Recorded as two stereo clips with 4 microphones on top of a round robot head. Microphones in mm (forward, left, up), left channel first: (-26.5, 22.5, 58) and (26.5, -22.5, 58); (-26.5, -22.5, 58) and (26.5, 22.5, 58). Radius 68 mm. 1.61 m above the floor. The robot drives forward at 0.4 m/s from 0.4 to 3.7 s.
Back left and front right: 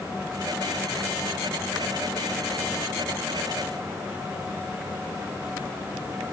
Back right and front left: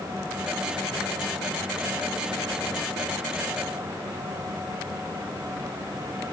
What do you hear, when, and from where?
Only background noise.